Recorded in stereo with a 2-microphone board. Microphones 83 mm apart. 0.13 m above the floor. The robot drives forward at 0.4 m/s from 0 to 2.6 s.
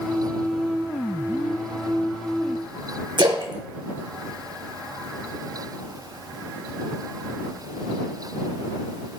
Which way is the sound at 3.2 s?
60° right (ahead or behind).